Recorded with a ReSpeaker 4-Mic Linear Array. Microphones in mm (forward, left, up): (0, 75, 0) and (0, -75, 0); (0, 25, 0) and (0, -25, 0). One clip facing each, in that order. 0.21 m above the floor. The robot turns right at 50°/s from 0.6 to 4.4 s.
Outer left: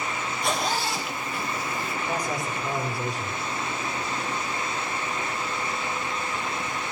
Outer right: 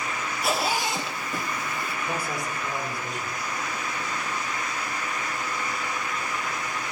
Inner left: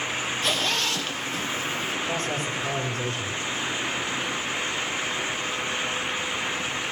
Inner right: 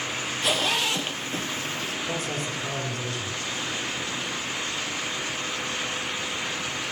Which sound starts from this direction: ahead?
A man speaking, at 2.0 s.